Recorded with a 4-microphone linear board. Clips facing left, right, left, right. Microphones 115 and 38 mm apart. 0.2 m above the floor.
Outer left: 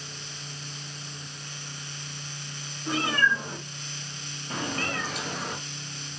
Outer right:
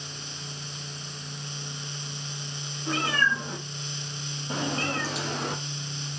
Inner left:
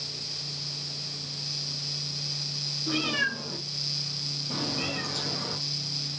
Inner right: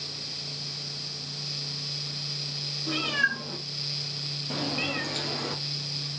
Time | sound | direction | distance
2.9 | a cat meowing | centre (ahead or behind) | 3.5 m